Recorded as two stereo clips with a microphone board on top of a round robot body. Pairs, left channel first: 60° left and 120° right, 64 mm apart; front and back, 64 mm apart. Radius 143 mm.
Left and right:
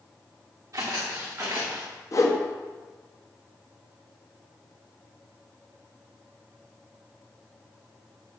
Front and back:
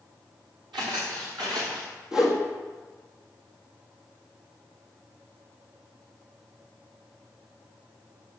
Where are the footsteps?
170° right, 4.5 m; by 1.9 s 175° left, 4.5 m.